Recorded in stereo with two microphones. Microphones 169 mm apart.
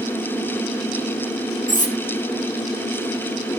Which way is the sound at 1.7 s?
50° left (ahead or behind).